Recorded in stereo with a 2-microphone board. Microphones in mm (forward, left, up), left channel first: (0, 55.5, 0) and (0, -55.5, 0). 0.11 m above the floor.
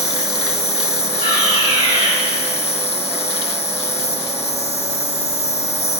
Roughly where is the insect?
Left.